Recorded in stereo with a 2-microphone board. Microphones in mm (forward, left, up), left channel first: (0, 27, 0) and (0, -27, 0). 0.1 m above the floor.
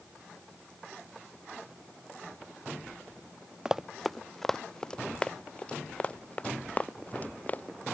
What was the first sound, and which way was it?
Running footsteps, 10° right (ahead or behind).